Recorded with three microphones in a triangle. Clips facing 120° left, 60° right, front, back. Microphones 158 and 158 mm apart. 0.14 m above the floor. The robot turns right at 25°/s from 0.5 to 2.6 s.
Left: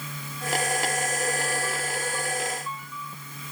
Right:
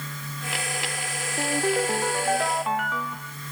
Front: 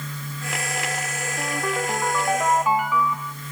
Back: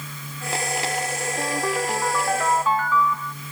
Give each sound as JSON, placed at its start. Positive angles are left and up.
{"t": 1.4, "sound": "a ringtone", "azimuth_deg": -105}